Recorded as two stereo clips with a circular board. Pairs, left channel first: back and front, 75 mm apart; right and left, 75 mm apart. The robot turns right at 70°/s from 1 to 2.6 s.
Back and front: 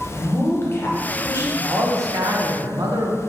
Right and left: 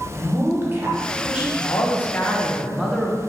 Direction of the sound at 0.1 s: 135° left.